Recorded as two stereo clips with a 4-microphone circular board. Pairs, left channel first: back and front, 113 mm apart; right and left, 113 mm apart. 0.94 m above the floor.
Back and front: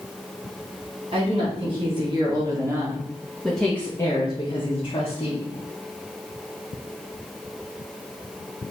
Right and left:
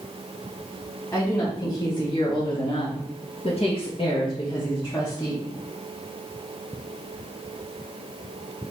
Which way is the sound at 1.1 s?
30° right.